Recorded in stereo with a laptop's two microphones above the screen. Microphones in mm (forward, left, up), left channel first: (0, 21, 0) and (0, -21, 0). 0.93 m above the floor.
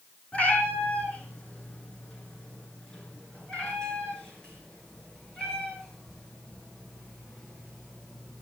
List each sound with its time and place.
0.3 s a cat meowing: 35° left (ahead or behind), 4.5 m; by 8.4 s 10° left (ahead or behind), 7.5 m